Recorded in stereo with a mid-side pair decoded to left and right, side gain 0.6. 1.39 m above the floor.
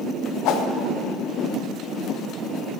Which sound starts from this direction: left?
A whoosh, at 0.5 s.